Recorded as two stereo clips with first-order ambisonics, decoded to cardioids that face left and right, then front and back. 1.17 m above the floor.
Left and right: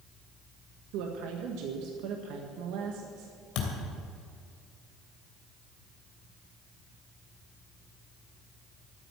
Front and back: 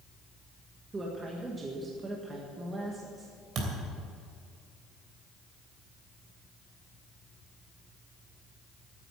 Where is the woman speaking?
105° right, 1.6 m.